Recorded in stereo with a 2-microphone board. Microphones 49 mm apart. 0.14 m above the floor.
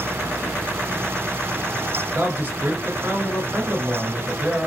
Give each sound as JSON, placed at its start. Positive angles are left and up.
{"t": 2.1, "sound": "a man speaking", "side_deg": -40, "distance_m": 2.0}